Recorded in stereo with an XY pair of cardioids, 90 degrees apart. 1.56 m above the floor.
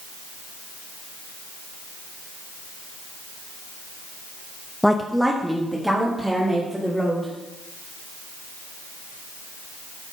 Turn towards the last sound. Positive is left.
turn(degrees=-5)